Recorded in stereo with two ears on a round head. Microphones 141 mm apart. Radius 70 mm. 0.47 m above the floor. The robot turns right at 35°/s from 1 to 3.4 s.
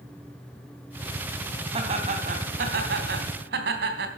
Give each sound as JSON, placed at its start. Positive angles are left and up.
{"t": 1.7, "sound": "laughter", "azimuth_deg": -145, "distance_m": 3.0}